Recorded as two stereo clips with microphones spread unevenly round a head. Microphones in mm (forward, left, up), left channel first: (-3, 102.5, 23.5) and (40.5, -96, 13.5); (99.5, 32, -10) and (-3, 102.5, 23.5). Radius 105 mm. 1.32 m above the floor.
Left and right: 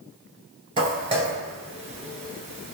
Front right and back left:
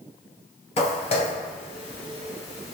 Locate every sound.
0.8 s footsteps: 25° right, 1.5 m; by 2.7 s 110° right, 1.5 m